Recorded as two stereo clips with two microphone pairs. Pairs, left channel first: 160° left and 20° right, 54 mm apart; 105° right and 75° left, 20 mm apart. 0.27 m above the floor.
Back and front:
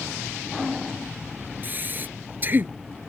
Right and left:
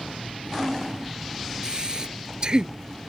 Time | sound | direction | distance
1.6 | breathing | 30° left | ?